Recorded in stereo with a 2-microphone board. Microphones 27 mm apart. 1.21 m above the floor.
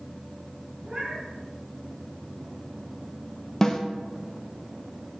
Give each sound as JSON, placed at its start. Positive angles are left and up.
{"t": 0.8, "sound": "a cat meowing", "side_deg": -35, "distance_m": 5.0}
{"t": 3.6, "sound": "a snare drum", "side_deg": 25, "distance_m": 1.1}